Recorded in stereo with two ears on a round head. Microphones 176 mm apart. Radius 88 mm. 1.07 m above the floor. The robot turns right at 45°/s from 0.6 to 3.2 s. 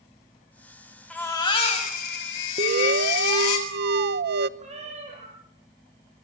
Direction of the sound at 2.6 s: 35° right (ahead or behind).